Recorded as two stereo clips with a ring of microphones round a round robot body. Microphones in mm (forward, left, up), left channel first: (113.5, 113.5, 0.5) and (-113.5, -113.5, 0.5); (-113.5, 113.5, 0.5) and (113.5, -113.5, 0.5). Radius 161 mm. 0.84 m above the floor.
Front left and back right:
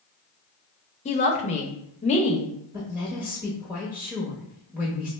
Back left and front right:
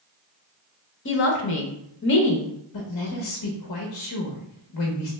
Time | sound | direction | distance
1.1 | a woman speaking | 105° left | 0.6 m
2.7 | a woman speaking | 140° left | 0.8 m